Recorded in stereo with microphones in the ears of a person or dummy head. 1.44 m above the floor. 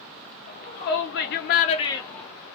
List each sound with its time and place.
0.5 s a shout: 35° left (ahead or behind), 0.9 m; by 2.3 s 10° left (ahead or behind), 0.7 m